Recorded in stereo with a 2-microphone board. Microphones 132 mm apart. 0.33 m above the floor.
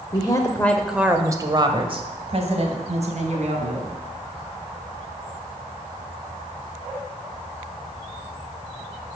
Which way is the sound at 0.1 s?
35° left (ahead or behind).